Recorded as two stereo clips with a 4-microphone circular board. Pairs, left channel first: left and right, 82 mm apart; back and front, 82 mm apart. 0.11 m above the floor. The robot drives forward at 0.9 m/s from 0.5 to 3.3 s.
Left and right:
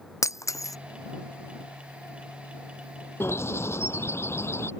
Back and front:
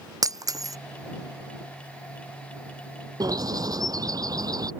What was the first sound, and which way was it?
Breaking glass, 40° left.